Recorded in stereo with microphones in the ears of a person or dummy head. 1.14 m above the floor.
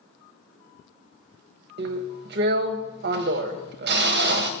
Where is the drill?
50° right (ahead or behind), 0.6 m.